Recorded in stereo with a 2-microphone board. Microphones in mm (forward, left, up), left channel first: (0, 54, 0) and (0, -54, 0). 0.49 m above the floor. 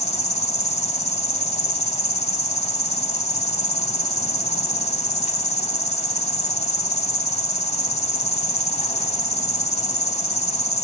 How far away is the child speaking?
I don't hear a child speaking.